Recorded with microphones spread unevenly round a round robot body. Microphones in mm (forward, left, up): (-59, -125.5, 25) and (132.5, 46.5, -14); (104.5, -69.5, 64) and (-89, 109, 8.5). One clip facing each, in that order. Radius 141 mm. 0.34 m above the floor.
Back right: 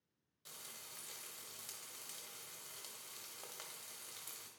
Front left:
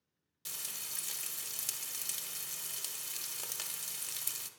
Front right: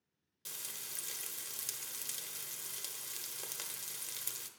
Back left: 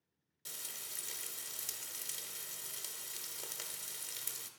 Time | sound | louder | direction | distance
0.5 | frying | front left 4 dB, even | 45° left | 0.8 m